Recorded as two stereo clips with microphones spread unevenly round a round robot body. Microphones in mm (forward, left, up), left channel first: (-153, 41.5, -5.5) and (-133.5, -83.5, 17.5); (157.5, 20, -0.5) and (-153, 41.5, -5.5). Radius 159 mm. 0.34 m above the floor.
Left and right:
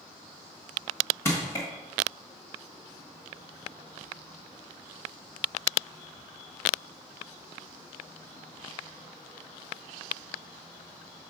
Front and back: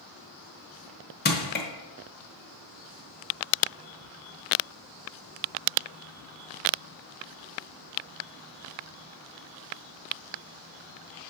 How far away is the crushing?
About 1.1 m.